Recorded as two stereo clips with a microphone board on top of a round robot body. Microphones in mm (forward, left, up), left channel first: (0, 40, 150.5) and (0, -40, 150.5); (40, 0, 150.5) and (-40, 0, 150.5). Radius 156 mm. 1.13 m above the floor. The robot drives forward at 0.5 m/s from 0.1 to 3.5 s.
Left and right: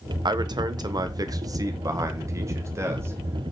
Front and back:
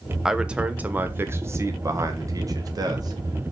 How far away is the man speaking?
About 1.2 m.